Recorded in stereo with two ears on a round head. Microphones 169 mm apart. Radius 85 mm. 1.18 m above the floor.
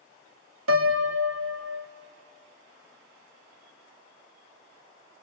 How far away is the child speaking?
No child speaking in this recording.